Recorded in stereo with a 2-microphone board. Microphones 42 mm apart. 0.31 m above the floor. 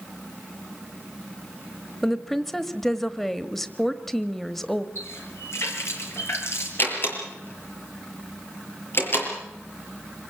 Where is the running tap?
70° left (ahead or behind), 4.5 m.